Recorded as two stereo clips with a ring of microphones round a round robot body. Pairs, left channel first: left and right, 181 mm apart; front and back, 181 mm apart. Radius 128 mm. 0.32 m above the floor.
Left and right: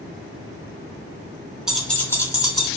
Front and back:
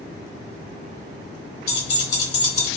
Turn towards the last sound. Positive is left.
turn(degrees=25)